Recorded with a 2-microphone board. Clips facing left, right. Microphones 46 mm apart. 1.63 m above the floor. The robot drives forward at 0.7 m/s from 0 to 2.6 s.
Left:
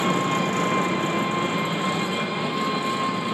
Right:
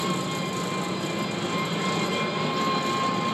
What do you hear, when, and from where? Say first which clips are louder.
0.0 s an engine running: left 6 dB; 45° left (ahead or behind), 0.8 m; by 3.4 s 20° left (ahead or behind), 1.6 m